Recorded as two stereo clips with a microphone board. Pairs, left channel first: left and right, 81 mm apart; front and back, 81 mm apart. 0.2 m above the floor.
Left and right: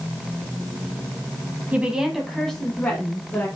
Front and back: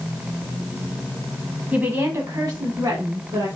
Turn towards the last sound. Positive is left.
turn(degrees=150)